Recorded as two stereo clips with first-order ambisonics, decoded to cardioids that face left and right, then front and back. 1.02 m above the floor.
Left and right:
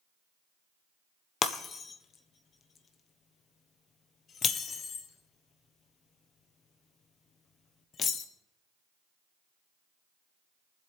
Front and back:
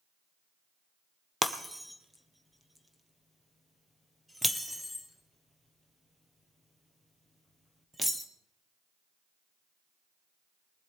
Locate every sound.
1.4 s breaking glass: 100° left, 1.1 m